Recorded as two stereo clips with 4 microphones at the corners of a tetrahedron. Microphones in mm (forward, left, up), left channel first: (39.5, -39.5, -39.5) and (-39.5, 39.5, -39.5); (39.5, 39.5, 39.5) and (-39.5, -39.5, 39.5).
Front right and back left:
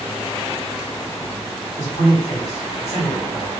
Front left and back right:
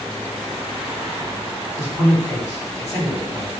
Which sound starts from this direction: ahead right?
A man speaking, at 1.8 s.